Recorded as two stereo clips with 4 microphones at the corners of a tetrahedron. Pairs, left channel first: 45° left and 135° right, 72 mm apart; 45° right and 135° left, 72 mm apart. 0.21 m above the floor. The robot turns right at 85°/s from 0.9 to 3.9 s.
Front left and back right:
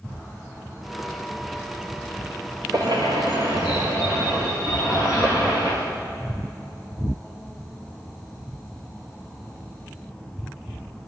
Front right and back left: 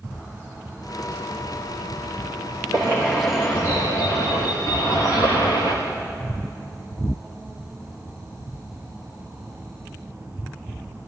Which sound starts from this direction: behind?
A bird, at 2.7 s.